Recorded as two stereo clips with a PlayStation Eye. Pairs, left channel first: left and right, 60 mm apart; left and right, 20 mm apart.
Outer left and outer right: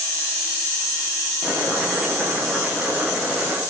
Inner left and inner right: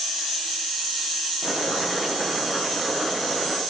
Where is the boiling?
25° right (ahead or behind), 7.5 m.